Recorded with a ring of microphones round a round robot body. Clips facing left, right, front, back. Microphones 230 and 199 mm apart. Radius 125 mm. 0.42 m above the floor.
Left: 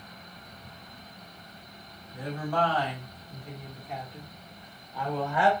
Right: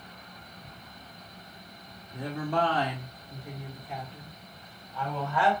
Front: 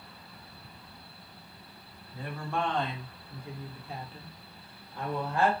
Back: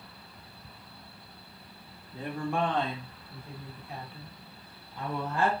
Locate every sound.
2.1 s a woman speaking: 130° right, 1.5 m; by 5.5 s 15° left, 2.5 m